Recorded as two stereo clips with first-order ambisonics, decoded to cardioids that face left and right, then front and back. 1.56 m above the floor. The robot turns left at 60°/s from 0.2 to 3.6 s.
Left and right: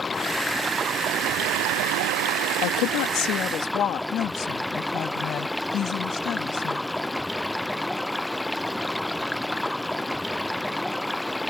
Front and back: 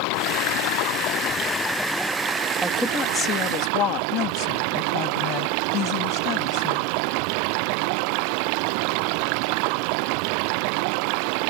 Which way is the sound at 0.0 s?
20° left.